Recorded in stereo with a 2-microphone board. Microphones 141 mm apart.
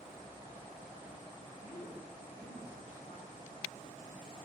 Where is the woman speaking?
85° left, 5.5 m; by 4.4 s 70° left (ahead or behind), 9 m.